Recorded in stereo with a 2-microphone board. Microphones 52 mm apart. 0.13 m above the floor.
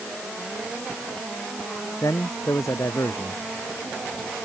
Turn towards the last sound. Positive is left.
turn(degrees=80)